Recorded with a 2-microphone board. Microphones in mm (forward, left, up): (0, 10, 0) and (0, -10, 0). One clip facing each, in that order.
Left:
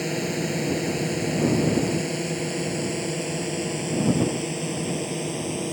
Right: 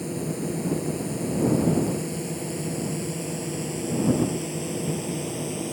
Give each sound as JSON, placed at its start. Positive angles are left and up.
{"t": 0.0, "sound": "a drone", "side_deg": 45}